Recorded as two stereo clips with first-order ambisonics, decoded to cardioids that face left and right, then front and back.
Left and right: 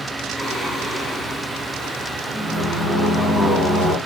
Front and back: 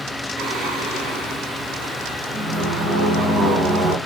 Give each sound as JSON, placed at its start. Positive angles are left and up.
{"t": 0.4, "sound": "singing", "azimuth_deg": -170, "distance_m": 1.8}